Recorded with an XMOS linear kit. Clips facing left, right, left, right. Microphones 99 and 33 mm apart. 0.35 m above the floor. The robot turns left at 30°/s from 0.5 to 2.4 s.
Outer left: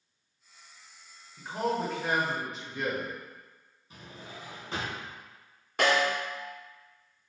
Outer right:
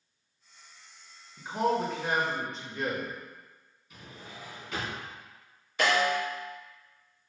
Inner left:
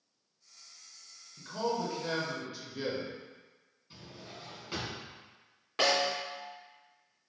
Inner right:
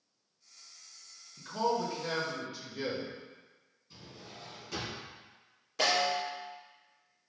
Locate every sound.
1.4 s a man speaking: 10° right (ahead or behind), 0.9 m; by 3.1 s 5° left (ahead or behind), 0.9 m
3.9 s a drawer: 35° left (ahead or behind), 1.5 m
5.8 s a snare drum: 60° left (ahead or behind), 2.0 m